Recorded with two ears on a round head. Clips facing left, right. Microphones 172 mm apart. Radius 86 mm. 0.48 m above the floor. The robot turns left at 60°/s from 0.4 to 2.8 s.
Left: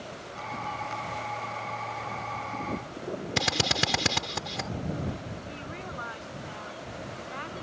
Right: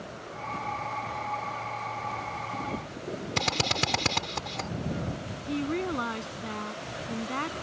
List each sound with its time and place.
3.4 s a drill: 10° left (ahead or behind)
5.5 s a woman speaking: 65° right (ahead or behind)